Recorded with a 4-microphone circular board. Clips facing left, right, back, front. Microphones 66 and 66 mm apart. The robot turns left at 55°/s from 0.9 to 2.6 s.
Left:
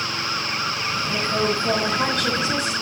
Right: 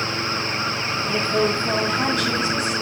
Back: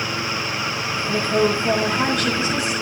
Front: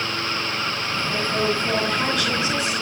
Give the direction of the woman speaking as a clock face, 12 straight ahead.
7 o'clock.